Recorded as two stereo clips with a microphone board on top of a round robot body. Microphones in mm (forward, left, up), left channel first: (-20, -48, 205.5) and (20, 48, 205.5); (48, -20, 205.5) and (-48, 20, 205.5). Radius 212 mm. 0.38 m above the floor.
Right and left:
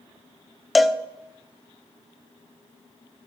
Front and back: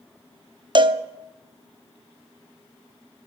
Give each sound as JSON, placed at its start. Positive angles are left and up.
{"t": 0.8, "sound": "a cowbell", "azimuth_deg": 155, "distance_m": 1.1}